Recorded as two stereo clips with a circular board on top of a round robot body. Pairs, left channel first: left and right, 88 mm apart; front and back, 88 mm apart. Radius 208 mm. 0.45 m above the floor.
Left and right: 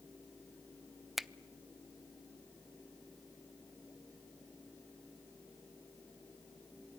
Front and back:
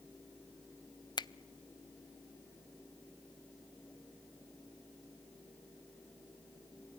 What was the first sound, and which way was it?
A finger snap, straight ahead.